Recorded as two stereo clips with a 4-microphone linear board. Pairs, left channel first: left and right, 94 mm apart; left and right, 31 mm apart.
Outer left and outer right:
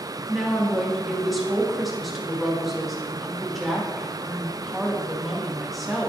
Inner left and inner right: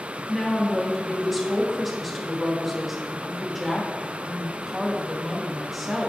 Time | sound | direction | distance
0.3 | a woman speaking | centre (ahead or behind) | 1.8 m